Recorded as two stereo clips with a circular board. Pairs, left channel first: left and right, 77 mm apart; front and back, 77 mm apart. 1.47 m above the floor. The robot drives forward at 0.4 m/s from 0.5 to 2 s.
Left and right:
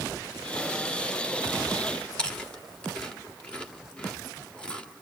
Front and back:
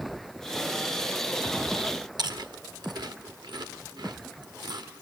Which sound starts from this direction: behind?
Chewing, at 2.2 s.